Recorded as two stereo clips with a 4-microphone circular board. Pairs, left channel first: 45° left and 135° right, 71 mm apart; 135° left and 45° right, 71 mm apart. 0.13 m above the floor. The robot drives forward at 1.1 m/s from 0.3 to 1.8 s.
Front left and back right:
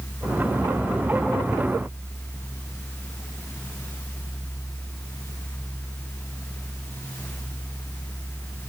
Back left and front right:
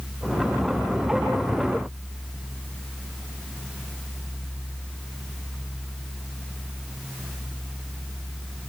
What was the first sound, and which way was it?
Only background noise.